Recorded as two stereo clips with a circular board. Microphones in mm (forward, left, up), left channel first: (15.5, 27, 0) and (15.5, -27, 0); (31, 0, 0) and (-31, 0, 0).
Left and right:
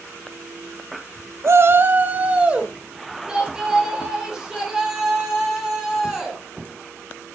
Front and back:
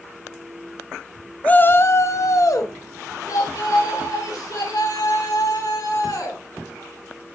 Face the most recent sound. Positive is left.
turn(degrees=-10)